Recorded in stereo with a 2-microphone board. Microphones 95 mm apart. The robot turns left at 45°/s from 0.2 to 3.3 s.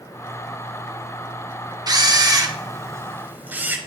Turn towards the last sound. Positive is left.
turn(degrees=-20)  # may be behind; listen again after turning